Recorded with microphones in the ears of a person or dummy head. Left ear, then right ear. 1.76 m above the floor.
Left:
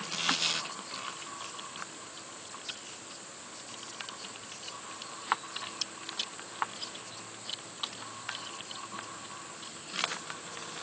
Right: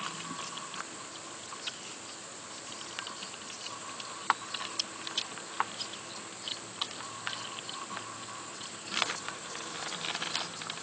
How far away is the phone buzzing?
I don't hear a phone buzzing.